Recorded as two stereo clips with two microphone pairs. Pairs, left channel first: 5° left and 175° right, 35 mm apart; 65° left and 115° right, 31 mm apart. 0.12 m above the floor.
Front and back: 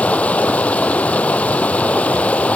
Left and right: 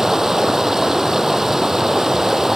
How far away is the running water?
About 1.1 m.